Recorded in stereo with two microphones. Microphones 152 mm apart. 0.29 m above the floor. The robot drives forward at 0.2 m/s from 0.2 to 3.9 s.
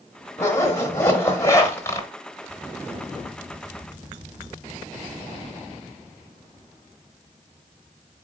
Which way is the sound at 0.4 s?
20° left (ahead or behind).